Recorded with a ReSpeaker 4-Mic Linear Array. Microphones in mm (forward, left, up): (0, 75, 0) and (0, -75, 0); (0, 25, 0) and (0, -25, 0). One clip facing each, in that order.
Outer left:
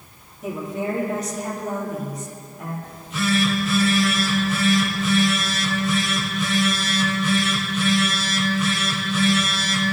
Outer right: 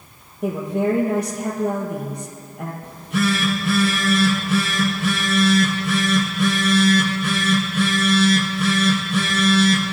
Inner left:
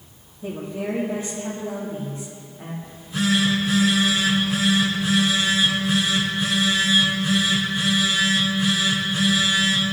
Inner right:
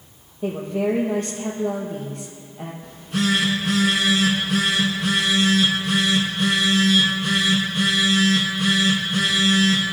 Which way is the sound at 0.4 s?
60° right (ahead or behind).